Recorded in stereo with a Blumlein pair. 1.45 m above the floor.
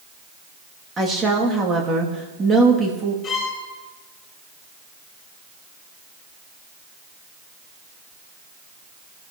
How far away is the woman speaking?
About 3 m.